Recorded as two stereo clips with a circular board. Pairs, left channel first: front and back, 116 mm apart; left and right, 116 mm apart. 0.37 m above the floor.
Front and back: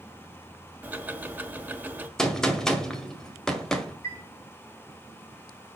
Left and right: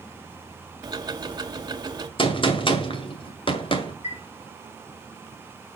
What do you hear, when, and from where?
0.8 s ticking: 110° right, 1.2 m
2.2 s a gunshot: 85° left, 2.0 m
4.0 s a chime: 65° left, 4 m